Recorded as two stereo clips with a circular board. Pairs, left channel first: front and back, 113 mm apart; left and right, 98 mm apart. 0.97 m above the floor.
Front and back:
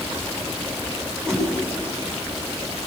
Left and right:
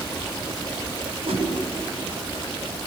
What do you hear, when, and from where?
1.2 s a whoosh: 90° right, 7 m